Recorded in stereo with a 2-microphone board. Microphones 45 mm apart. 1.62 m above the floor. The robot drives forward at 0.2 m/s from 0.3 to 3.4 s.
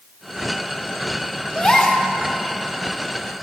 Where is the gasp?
15° left (ahead or behind), 1.0 m.